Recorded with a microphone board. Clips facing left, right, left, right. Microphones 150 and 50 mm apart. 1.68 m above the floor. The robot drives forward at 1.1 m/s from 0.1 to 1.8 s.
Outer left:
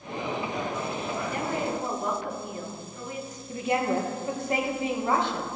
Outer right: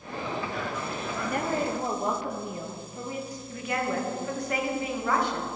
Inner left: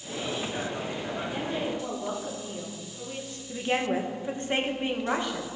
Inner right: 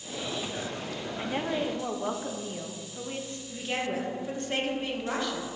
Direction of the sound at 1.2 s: 60° right (ahead or behind).